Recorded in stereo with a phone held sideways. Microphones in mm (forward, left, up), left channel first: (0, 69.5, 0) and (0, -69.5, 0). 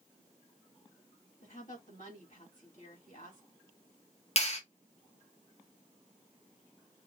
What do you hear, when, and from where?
1.4 s a woman speaking: 70° left (ahead or behind), 3 m
4.4 s a clap: 50° left (ahead or behind), 1.3 m